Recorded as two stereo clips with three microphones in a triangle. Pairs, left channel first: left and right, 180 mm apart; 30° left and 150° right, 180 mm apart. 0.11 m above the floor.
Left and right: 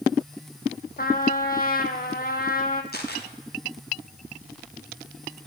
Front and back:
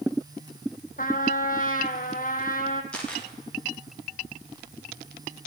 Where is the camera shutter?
115° left, 4.5 m.